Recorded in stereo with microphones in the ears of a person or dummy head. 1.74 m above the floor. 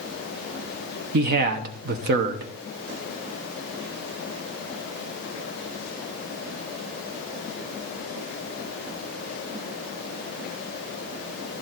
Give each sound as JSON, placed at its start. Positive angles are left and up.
{"t": 1.1, "sound": "a man speaking", "side_deg": -55, "distance_m": 0.9}